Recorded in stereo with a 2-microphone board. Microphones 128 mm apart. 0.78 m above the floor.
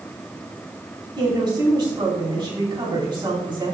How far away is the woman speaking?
About 5.5 m.